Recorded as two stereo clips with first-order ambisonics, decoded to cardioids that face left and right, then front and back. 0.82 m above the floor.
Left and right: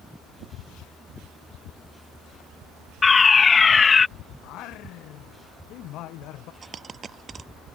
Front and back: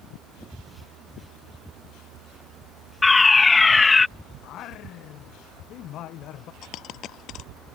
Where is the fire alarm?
60° left.